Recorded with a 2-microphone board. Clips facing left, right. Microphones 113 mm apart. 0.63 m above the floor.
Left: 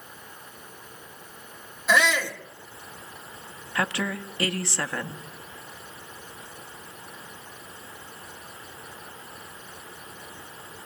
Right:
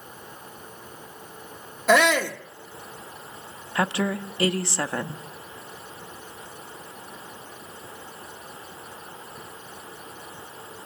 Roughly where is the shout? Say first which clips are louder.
Right 4 dB; right.